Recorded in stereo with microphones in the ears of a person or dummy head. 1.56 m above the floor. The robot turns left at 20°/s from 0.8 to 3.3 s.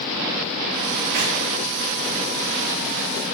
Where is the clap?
60° right (ahead or behind), 3 m; by 1.3 s 55° right (ahead or behind), 3 m.